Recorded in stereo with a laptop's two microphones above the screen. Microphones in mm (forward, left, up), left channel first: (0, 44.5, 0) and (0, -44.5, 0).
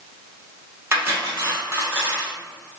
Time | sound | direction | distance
0.9 | cutlery clinking | 30° right (ahead or behind) | 1.1 m